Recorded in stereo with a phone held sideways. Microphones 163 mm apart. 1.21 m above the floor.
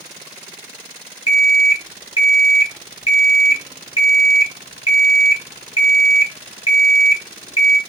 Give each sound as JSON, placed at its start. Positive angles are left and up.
{"t": 1.3, "sound": "an alarm clock", "side_deg": 35, "distance_m": 1.1}